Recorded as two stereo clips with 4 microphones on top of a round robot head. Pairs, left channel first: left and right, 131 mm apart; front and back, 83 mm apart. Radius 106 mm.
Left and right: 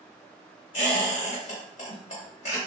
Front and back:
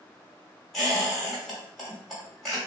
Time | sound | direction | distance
0.7 | a squeak | 85° left | 1.6 m